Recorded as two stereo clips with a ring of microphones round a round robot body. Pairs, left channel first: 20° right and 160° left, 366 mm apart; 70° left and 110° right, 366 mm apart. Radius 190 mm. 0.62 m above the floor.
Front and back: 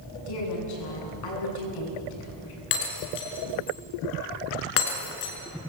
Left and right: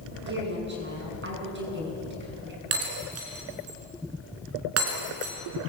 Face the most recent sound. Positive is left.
turn(degrees=-60)